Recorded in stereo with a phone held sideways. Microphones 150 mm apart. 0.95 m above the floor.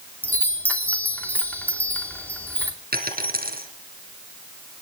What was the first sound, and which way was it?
A chime, 10° left (ahead or behind).